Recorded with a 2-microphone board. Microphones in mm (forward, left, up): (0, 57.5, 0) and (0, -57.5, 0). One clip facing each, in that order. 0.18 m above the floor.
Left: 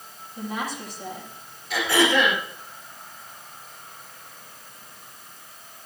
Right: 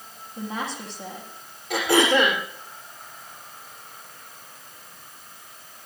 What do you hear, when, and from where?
0.4 s a woman speaking: 30° right (ahead or behind), 7 m
1.7 s throat clearing: 55° right (ahead or behind), 5 m